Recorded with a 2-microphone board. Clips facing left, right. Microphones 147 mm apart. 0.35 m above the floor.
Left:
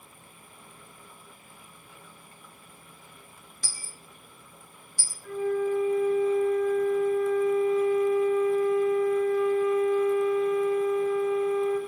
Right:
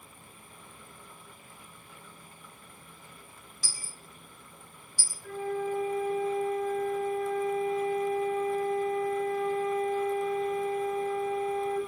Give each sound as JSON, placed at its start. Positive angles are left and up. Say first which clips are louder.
{"t": 3.6, "sound": "a dropped coin", "louder": "left 1 dB", "side_deg": 55, "distance_m": 0.6}
{"t": 5.2, "sound": "a flute", "louder": "left 5 dB", "side_deg": -35, "distance_m": 1.6}